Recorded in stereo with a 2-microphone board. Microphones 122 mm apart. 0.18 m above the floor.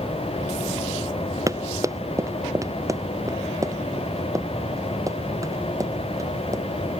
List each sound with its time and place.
1.5 s running footsteps: 25° right (ahead or behind)